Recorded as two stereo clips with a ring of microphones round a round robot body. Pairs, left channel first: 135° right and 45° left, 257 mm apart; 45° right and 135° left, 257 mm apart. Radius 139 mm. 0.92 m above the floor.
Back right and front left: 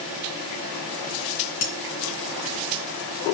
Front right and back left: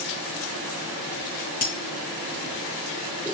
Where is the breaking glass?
115° right, 4 m.